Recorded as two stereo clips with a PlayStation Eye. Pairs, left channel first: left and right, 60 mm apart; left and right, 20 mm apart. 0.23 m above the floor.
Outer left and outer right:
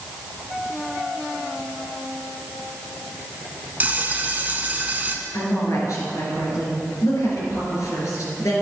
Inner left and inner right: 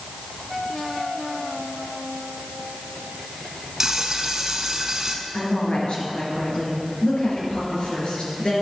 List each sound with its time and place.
3.8 s frying: 25° right (ahead or behind), 0.8 m
5.3 s a woman speaking: 55° left (ahead or behind), 3.5 m